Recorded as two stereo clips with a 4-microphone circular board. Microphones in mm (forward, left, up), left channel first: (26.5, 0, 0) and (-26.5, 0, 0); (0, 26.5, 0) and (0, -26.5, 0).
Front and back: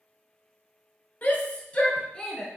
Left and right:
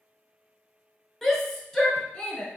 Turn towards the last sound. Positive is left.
turn(degrees=55)